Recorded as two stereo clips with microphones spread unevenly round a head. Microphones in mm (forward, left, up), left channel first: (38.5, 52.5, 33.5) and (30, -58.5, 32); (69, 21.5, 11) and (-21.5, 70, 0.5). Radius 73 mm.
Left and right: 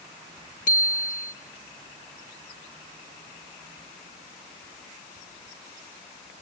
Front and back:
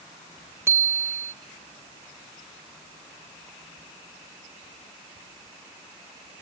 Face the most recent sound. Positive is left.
turn(degrees=85)